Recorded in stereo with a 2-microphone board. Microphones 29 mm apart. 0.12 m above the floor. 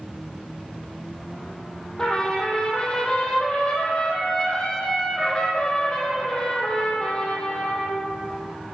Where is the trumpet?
25° left (ahead or behind), 2.5 m.